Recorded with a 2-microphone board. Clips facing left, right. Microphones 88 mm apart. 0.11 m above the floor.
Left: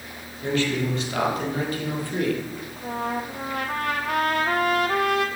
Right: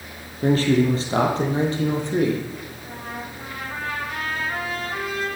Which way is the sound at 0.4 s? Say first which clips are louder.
Right 6 dB; 40° right (ahead or behind).